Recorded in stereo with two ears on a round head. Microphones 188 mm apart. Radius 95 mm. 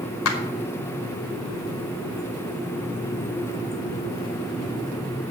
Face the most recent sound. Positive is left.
turn(degrees=75)  # may be behind; listen again after turning